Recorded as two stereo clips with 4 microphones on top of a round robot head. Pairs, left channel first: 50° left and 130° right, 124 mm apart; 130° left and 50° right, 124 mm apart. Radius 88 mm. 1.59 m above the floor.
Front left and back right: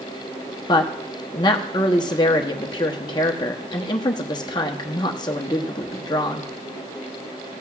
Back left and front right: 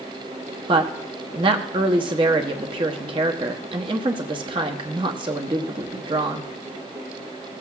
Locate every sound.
0.7 s a woman speaking: 5° right, 0.7 m